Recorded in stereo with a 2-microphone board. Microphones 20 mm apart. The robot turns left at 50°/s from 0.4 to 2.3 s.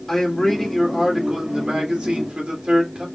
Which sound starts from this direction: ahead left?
A man speaking, at 0.1 s.